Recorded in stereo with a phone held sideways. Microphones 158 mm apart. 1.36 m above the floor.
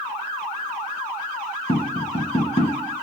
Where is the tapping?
40° left (ahead or behind), 1.6 m.